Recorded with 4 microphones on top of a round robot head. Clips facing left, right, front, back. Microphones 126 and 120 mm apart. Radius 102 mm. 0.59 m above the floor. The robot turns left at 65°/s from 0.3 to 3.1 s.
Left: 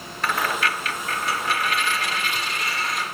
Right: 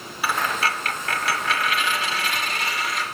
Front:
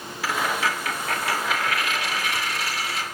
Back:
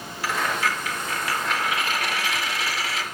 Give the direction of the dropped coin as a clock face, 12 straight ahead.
12 o'clock.